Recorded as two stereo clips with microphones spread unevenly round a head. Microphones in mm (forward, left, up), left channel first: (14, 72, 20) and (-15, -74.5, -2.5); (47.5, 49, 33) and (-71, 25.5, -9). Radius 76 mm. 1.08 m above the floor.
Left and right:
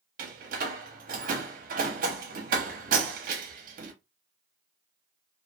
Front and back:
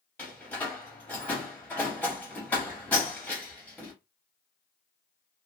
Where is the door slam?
60° right, 0.6 m.